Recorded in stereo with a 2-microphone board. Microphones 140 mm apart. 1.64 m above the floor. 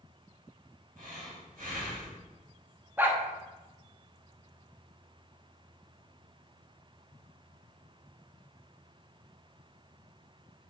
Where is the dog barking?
15° right (ahead or behind), 1.1 m.